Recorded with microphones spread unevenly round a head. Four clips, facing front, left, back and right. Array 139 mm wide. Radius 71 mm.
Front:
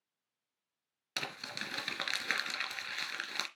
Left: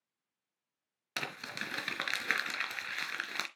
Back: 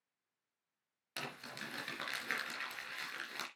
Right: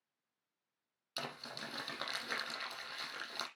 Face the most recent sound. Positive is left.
turn(degrees=70)